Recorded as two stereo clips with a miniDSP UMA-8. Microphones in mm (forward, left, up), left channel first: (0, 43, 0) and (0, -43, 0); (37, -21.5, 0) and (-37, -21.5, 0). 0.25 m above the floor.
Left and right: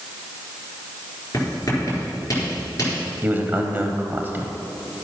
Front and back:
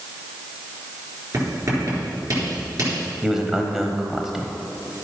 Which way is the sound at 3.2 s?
105° right.